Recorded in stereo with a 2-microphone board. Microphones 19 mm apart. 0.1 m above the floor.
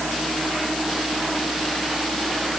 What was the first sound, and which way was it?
Only background noise.